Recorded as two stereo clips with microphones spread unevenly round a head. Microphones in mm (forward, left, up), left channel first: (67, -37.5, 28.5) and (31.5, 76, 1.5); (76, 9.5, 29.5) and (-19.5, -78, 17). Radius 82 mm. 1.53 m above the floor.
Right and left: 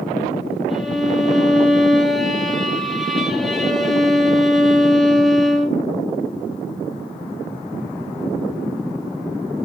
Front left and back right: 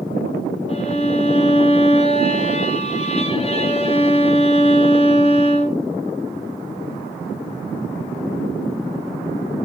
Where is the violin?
10° left, 1.1 m.